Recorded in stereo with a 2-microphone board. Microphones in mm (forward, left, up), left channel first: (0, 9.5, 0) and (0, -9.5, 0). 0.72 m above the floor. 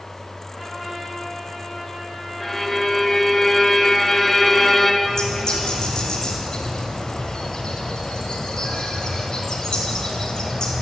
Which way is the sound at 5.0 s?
40° left (ahead or behind).